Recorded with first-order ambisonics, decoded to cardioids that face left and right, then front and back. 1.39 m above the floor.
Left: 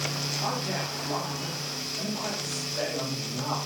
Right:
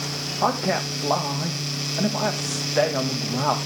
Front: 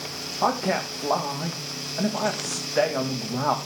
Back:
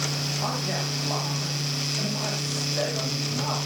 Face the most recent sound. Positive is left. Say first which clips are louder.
# right 12 dB, front 5 dB
turn(degrees=-55)